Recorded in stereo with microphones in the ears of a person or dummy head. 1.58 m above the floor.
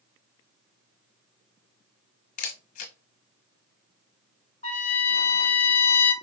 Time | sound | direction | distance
2.4 | a camera shutter | 45° left (ahead or behind) | 1.2 m
4.6 | a trumpet | 35° left (ahead or behind) | 1.9 m